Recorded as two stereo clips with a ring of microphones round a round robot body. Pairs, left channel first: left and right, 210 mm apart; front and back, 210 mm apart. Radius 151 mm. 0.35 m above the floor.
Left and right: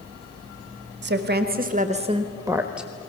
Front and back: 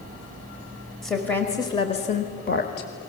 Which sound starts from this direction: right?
A woman speaking, at 1.0 s.